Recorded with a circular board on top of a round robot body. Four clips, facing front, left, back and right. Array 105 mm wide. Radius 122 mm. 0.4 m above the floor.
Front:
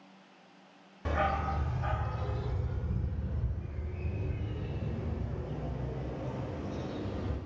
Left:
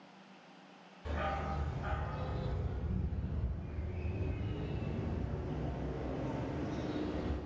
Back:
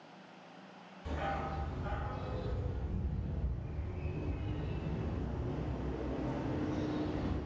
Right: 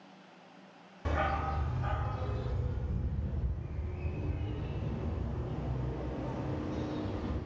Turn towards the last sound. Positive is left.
turn(degrees=20)